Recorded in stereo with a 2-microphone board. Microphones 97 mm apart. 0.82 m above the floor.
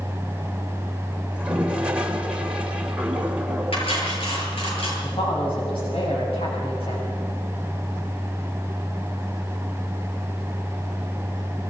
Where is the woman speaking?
85° left, 6.5 m.